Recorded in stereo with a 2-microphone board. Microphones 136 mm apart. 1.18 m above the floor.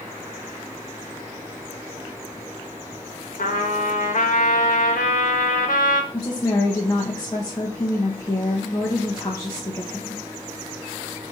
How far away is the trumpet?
About 1.2 m.